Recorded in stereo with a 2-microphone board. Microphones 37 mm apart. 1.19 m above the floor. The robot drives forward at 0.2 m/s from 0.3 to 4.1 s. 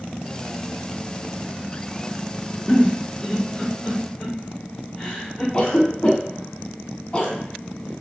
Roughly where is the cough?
Left.